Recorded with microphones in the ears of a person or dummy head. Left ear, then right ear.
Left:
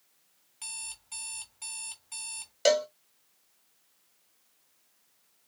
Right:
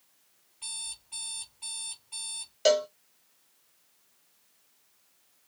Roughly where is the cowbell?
Centre.